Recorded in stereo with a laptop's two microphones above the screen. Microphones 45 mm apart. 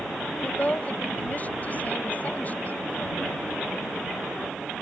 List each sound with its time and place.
0.4 s a woman speaking: 35° left (ahead or behind)